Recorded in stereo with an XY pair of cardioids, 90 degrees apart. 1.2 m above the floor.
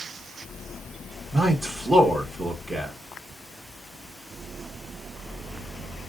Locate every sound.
1.3 s a man speaking: 40° right, 1.2 m